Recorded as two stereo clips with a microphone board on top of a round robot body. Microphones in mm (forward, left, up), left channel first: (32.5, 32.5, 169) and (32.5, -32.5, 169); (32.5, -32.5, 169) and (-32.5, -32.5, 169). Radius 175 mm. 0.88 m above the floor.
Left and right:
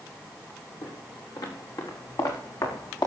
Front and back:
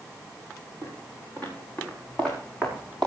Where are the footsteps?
65° left, 7.5 m; by 3.1 s 80° left, 5.5 m.